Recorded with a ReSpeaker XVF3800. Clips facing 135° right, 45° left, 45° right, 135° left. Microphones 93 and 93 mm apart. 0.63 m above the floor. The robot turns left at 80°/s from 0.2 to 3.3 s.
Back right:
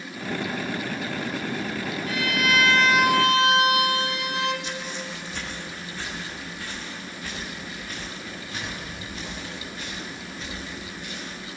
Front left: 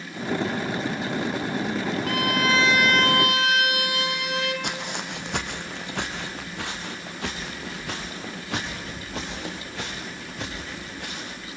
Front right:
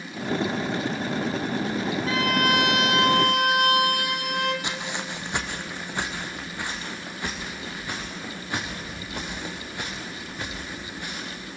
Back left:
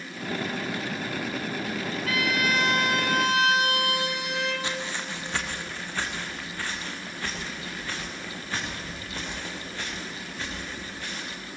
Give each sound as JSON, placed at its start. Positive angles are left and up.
{"t": 2.0, "sound": "a violin", "azimuth_deg": 20, "distance_m": 3.0}
{"t": 4.6, "sound": "footsteps", "azimuth_deg": 25, "distance_m": 1.7}